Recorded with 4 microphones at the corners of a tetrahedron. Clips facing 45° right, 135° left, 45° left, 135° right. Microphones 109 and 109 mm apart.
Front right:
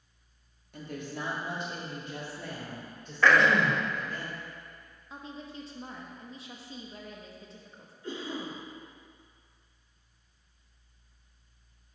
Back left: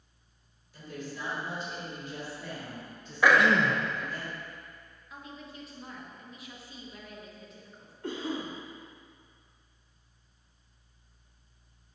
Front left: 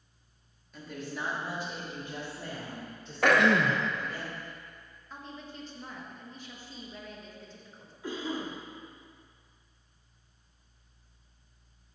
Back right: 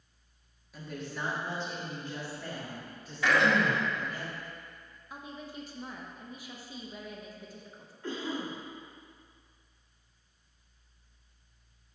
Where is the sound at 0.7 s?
50° right, 1.5 m; by 4.2 s 10° right, 3 m.